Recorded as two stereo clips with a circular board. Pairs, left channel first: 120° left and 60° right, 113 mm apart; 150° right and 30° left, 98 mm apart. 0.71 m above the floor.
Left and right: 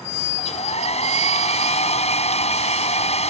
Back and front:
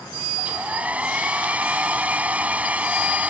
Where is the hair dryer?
105° left.